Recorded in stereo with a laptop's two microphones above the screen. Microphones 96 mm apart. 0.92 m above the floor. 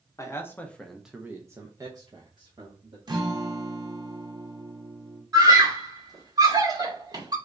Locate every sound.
0.2 s a man speaking: 30° left (ahead or behind), 0.7 m; by 3.0 s 50° right (ahead or behind), 1.2 m
3.1 s a guitar: 45° right (ahead or behind), 0.6 m
5.3 s a scream: 40° right (ahead or behind), 2.0 m